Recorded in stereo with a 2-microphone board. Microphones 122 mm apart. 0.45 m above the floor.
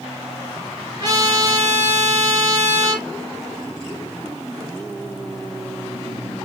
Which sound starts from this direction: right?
A trumpet, at 1.0 s.